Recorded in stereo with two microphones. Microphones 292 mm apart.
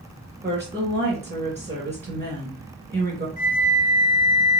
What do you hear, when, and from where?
0.4 s a woman speaking: 35° right (ahead or behind), 2 m
3.4 s a flute: 30° right (ahead or behind), 1.7 m